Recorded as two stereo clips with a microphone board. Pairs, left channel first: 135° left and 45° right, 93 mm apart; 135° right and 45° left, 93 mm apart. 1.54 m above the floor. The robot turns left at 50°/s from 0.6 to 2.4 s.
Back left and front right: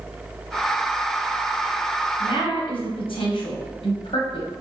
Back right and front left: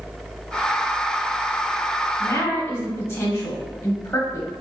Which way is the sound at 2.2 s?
165° left.